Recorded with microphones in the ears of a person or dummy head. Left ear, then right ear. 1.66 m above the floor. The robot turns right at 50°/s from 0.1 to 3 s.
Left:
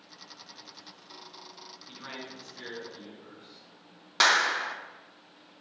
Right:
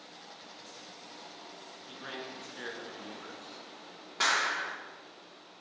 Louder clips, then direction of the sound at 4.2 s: Left 5 dB; 50° left (ahead or behind).